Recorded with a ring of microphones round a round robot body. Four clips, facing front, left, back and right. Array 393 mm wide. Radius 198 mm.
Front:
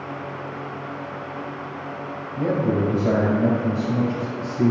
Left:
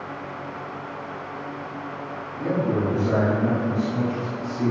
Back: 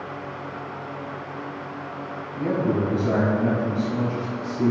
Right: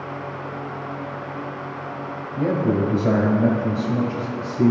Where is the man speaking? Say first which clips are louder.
Right 3 dB, front 1 dB; 60° right, 3 m.